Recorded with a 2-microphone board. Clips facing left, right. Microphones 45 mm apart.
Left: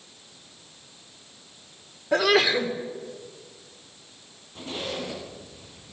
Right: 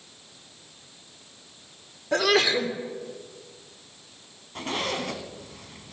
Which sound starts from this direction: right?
A zipper, at 4.5 s.